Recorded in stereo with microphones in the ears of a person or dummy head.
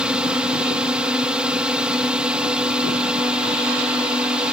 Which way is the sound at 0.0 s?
5° right (ahead or behind).